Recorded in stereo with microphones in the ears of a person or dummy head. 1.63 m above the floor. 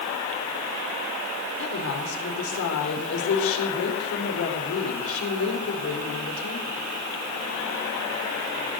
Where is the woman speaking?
75° left (ahead or behind), 4.5 m.